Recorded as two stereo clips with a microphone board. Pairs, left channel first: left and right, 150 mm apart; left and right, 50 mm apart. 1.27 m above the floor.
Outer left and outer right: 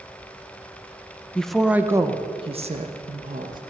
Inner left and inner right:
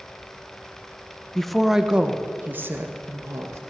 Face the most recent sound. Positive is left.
turn(degrees=-60)  # may be behind; listen again after turning